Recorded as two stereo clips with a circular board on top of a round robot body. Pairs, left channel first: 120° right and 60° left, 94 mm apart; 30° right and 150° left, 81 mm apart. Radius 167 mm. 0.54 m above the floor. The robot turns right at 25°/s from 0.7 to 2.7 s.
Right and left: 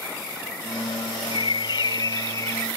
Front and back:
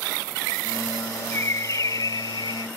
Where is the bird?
90° right; by 2.7 s 55° right.